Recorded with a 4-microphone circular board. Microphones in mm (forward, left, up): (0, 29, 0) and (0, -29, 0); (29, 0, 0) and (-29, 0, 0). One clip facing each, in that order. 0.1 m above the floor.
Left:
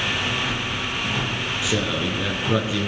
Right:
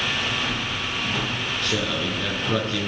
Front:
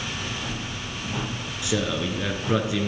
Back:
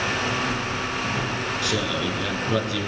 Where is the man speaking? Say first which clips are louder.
Left 2 dB, front 2 dB; 25° left, 1.1 m.